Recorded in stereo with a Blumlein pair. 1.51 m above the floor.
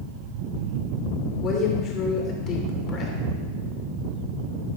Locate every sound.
1.4 s a woman speaking: 35° left, 2.5 m